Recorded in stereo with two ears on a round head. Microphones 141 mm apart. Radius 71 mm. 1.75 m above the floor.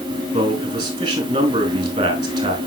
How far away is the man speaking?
About 3.5 m.